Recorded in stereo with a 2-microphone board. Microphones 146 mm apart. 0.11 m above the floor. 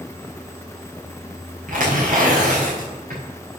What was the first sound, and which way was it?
Tearing paper, 65° right (ahead or behind).